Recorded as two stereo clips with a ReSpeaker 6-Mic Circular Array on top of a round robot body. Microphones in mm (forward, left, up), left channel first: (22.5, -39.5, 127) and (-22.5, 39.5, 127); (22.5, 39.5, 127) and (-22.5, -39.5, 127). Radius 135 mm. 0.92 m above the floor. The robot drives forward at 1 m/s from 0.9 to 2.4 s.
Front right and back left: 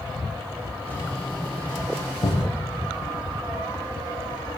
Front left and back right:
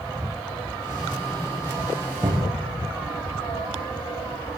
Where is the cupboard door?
75° right, 7.5 m.